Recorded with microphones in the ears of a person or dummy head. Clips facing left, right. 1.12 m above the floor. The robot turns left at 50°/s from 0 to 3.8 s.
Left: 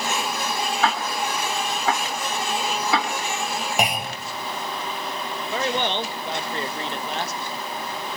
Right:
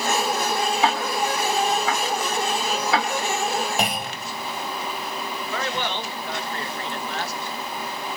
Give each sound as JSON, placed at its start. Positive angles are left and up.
{"t": 0.8, "sound": "ticking", "side_deg": -15, "distance_m": 3.0}
{"t": 3.8, "sound": "a clunk", "side_deg": 10, "distance_m": 2.5}
{"t": 5.5, "sound": "a man speaking", "side_deg": 20, "distance_m": 1.5}